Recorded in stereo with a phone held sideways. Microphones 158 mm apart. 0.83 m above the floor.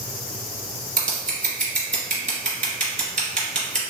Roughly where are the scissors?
Right.